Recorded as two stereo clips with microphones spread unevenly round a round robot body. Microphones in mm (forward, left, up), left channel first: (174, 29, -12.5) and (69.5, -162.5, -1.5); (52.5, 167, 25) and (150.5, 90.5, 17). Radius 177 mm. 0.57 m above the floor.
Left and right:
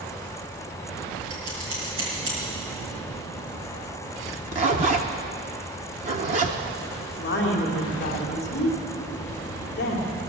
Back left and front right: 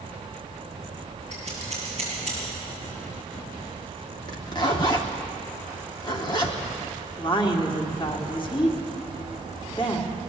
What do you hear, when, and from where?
1.3 s scissors: 145° right, 5 m
4.3 s a zipper: 170° right, 0.5 m
7.2 s a woman speaking: 100° left, 2.0 m